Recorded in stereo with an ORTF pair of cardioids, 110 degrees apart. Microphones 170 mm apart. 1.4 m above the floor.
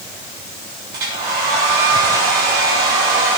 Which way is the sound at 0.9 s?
65° right.